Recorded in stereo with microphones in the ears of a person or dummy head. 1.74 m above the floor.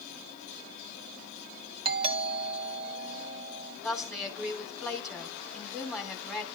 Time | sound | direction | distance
1.9 | a doorbell | 30° right (ahead or behind) | 2 m
3.8 | a woman speaking | centre (ahead or behind) | 4 m